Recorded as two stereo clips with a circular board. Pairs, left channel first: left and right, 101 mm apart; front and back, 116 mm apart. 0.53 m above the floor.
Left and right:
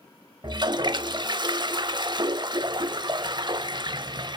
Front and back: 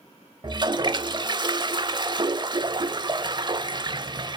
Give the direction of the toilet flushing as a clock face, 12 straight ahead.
4 o'clock.